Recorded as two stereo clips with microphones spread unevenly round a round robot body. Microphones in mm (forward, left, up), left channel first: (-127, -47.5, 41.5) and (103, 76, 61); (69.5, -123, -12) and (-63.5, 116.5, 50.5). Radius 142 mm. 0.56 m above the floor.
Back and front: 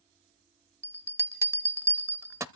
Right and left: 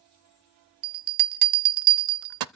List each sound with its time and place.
0.8 s a bell: 105° left, 0.6 m